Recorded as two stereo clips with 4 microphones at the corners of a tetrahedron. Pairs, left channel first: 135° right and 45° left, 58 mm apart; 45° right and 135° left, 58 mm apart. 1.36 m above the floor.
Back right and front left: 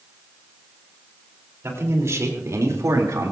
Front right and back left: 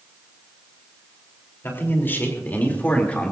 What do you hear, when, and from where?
1.6 s a man speaking: 5° left, 4 m; by 3.3 s 20° left, 3 m